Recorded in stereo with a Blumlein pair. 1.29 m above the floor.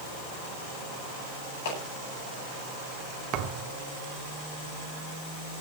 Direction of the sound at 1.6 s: 55° left.